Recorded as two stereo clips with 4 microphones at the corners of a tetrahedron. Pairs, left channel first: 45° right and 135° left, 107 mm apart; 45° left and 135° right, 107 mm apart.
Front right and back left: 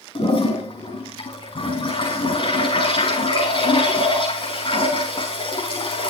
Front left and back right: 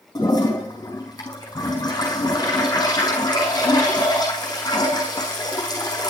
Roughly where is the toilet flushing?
Ahead.